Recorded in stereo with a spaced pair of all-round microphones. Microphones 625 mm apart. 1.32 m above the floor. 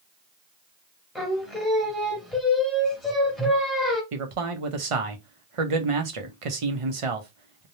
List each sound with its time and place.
1.1 s singing: centre (ahead or behind), 1.3 m
4.1 s a man speaking: 55° right (ahead or behind), 0.7 m